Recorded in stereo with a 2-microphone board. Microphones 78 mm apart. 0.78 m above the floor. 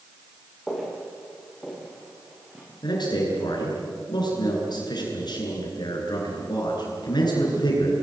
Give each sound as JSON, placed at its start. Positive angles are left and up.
{"t": 0.7, "sound": "footsteps", "side_deg": 0, "distance_m": 7.0}
{"t": 2.8, "sound": "a man speaking", "side_deg": 60, "distance_m": 9.0}